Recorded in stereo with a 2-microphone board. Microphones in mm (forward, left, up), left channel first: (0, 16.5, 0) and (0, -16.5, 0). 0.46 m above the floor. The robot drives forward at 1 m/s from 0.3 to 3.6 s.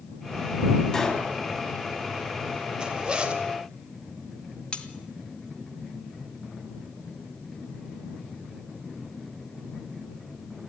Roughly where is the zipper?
Right.